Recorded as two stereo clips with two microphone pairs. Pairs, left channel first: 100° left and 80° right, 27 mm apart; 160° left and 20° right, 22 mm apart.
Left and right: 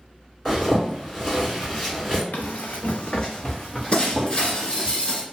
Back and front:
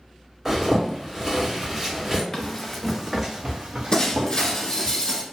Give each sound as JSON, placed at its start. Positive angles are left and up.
{"t": 0.5, "sound": "a zipper", "azimuth_deg": 25, "distance_m": 1.6}
{"t": 2.3, "sound": "running footsteps", "azimuth_deg": 90, "distance_m": 0.7}
{"t": 3.9, "sound": "breaking glass", "azimuth_deg": 130, "distance_m": 0.8}